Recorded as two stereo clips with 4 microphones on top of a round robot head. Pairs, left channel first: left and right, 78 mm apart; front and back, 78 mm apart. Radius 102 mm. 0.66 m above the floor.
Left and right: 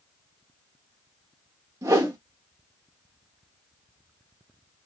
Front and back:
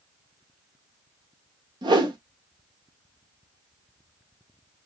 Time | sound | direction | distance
1.8 | a whoosh | 145° right | 0.9 m